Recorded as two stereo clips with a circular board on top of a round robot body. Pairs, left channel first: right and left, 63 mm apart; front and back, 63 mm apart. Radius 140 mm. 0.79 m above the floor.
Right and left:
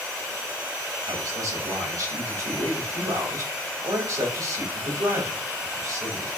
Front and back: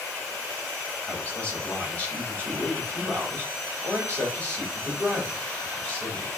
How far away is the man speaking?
About 5 m.